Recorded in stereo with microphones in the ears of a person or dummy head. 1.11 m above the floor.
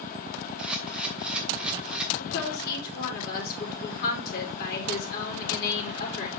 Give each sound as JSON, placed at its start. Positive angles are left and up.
{"t": 0.6, "sound": "a camera shutter", "side_deg": -10, "distance_m": 1.3}
{"t": 2.2, "sound": "a woman speaking", "side_deg": 55, "distance_m": 3.0}